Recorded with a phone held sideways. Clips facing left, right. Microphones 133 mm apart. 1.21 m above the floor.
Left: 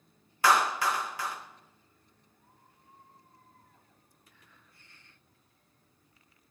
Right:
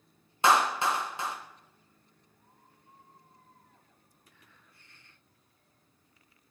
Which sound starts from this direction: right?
A clap, at 0.4 s.